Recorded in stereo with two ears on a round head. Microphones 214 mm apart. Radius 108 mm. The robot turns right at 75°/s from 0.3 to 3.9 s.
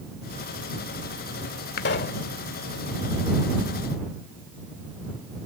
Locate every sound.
1.8 s a pop: 105° left; by 2.2 s 140° left